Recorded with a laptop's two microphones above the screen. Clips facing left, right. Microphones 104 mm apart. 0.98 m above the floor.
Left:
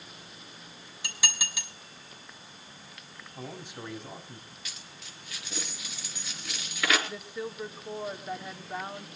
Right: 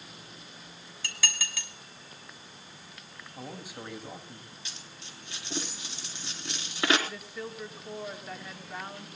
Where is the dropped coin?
30° right (ahead or behind), 3.5 m.